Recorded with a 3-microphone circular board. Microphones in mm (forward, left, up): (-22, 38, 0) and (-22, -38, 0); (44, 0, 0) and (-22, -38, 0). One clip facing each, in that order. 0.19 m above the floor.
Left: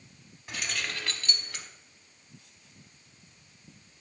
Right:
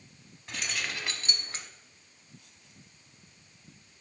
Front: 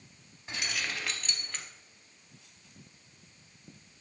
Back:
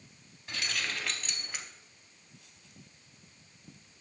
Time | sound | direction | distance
0.5 | keys jangling | 20° left | 0.7 m